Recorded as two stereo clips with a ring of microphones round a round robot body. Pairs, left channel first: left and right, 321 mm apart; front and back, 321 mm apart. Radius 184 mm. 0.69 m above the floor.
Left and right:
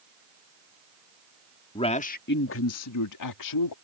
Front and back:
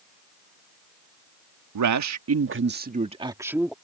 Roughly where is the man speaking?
Behind.